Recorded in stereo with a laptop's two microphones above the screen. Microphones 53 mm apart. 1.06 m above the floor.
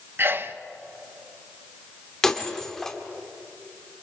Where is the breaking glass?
10° left (ahead or behind), 1.3 m.